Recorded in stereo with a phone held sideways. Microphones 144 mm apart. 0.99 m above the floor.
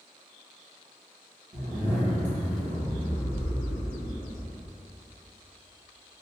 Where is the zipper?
60° right (ahead or behind), 1.4 m.